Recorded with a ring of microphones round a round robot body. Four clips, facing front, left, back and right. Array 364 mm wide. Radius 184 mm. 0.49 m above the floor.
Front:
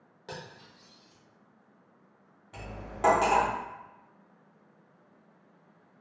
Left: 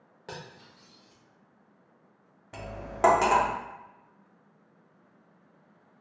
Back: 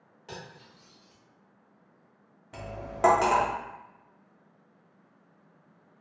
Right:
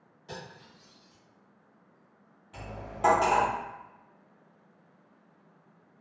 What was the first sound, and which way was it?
Cutlery clinking, 75° left.